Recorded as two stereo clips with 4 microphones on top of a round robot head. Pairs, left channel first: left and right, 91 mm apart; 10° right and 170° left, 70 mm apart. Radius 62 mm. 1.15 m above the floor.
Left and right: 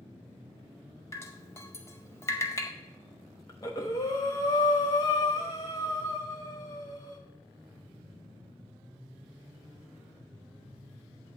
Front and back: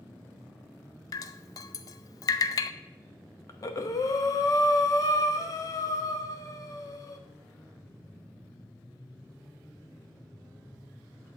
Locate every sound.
1.1 s dripping: 20° left, 0.5 m
3.5 s breathing: 30° left, 1.0 m